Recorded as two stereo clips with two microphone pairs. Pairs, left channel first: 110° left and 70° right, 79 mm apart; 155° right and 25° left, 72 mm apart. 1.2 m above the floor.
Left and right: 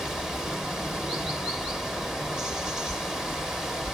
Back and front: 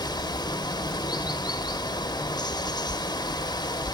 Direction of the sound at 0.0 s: 150° right.